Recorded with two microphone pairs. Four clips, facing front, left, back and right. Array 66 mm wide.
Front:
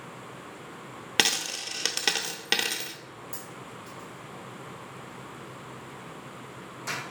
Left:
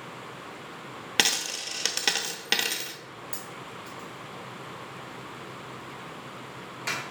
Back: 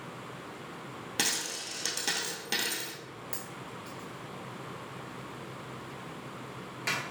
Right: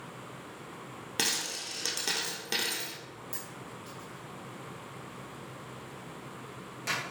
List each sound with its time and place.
1.2 s a dropped coin: 40° left, 0.6 m
3.3 s a dropped coin: 155° left, 1.2 m